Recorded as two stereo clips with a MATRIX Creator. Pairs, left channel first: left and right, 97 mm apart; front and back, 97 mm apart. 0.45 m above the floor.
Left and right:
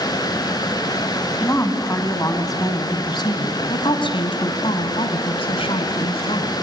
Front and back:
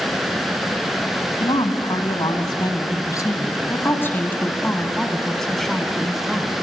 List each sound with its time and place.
1.4 s a woman speaking: 25° left, 3 m; by 6.5 s 95° left, 3.5 m